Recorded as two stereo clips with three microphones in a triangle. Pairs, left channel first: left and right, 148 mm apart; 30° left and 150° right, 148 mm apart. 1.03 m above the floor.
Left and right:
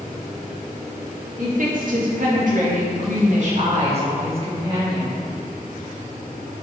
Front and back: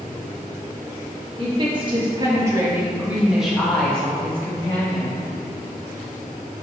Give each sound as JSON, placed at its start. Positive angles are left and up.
{"t": 1.4, "sound": "a woman speaking", "azimuth_deg": -100, "distance_m": 1.8}